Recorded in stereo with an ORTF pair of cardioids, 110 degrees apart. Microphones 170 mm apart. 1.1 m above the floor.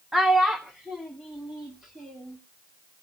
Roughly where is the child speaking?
Ahead.